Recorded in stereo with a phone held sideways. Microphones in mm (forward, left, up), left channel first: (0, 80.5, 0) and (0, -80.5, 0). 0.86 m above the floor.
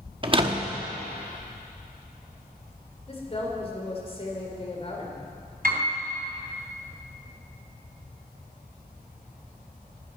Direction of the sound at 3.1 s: 40° left (ahead or behind).